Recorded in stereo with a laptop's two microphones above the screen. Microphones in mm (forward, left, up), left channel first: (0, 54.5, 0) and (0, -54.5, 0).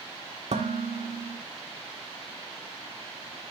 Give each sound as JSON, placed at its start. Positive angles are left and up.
{"t": 0.5, "sound": "dishes clattering", "side_deg": -80, "distance_m": 1.5}